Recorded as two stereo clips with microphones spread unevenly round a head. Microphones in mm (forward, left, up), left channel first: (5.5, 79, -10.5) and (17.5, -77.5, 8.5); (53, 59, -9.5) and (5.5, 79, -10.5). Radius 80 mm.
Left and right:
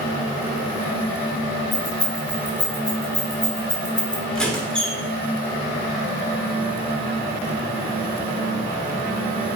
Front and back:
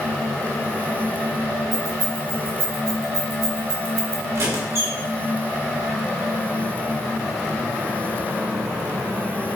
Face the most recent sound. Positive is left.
turn(degrees=-175)